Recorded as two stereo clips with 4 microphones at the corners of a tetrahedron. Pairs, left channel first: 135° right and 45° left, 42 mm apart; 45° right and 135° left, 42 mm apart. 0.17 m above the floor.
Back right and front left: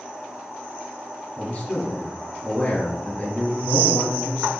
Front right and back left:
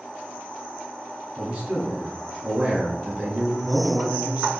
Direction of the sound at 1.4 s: Straight behind.